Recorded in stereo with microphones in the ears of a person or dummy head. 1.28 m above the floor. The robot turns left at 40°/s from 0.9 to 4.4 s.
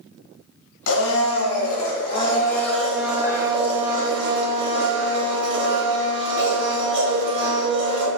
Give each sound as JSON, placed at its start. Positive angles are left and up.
{"t": 0.9, "sound": "a blender", "azimuth_deg": 80, "distance_m": 0.9}